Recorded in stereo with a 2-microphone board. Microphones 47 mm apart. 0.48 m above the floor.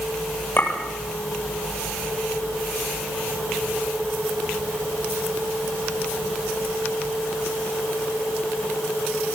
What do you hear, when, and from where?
0.6 s a clink: 40° left (ahead or behind), 8.5 m